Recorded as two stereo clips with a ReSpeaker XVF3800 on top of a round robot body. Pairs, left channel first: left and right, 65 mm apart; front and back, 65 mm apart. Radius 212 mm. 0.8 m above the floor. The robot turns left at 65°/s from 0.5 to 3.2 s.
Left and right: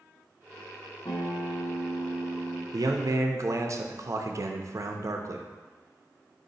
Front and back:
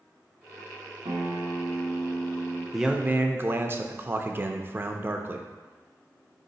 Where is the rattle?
I don't hear a rattle.